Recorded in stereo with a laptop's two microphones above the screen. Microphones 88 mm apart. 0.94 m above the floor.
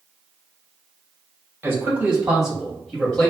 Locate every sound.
1.6 s a man speaking: 25° right (ahead or behind), 1.3 m; by 3.3 s 15° left (ahead or behind), 1.5 m